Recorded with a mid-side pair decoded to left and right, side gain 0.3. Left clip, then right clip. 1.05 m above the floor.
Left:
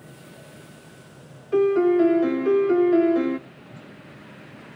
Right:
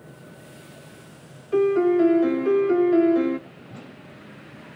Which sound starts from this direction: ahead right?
A whoosh, at 3.7 s.